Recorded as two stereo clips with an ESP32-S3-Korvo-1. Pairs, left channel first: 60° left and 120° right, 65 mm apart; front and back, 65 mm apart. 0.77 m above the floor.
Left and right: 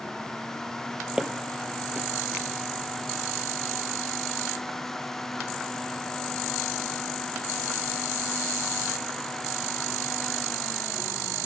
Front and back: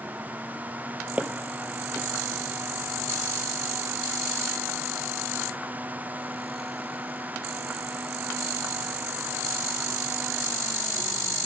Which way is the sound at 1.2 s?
Straight behind.